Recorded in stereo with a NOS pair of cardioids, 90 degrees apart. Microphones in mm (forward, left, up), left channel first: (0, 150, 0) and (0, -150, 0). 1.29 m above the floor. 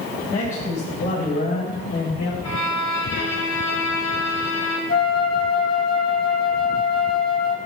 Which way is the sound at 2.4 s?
65° left.